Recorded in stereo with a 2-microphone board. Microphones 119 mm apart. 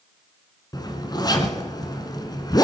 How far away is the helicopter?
I don't hear a helicopter.